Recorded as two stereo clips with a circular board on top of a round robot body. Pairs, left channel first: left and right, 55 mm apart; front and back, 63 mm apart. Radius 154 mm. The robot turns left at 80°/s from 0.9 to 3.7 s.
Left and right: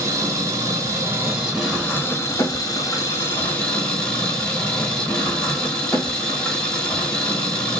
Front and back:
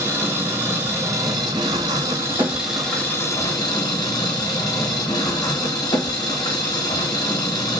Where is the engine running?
115° right, 0.9 m; by 7.8 s 25° left, 0.9 m.